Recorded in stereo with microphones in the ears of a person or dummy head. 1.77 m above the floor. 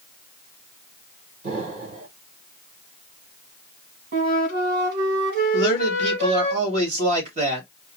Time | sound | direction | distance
1.4 | an explosion | 40° right (ahead or behind) | 2.5 m
4.1 | a flute | 55° right (ahead or behind) | 1.9 m
5.5 | a man speaking | 40° right (ahead or behind) | 2.5 m